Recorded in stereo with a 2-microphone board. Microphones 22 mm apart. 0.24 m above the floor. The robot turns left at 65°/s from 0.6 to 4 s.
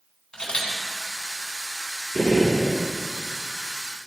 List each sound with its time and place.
0.3 s a camera shutter: 40° left (ahead or behind), 2 m; by 0.7 s 45° left (ahead or behind), 2 m
2.1 s a gunshot: 40° left, 2.5 m; by 2.8 s straight ahead, 2.5 m